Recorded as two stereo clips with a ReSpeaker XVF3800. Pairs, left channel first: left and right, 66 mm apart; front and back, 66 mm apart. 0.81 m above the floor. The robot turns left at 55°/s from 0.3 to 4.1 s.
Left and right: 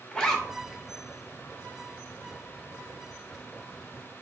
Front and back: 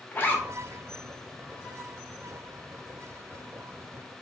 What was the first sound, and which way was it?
A zipper, 25° left.